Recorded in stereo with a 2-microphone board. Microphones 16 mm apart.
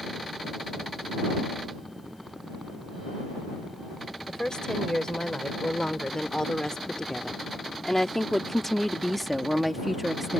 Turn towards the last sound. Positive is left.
turn(degrees=-20)  # may be behind; listen again after turning